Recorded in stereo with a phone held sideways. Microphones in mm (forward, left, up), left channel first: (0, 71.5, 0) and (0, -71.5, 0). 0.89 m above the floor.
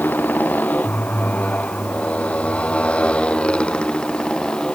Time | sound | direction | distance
0.0 | a motorcycle | 10° left (ahead or behind) | ?